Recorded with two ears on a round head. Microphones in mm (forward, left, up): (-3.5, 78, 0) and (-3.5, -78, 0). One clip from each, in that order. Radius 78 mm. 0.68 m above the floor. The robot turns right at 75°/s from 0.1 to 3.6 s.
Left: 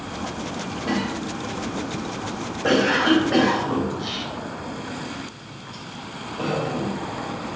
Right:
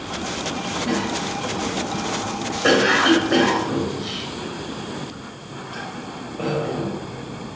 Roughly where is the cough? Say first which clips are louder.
Even; centre.